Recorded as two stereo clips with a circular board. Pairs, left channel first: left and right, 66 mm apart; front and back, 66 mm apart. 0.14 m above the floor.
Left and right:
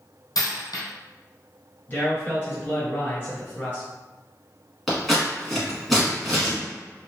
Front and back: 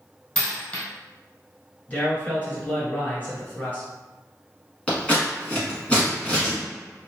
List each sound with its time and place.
0.3 s a dropped coin: 70° left, 1.5 m
1.9 s a man speaking: 50° left, 1.9 m
4.9 s scissors: straight ahead, 1.4 m